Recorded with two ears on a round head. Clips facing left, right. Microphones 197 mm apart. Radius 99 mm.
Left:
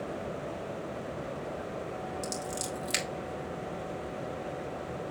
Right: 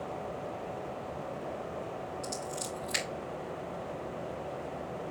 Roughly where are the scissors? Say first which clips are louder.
Left 2 dB; left.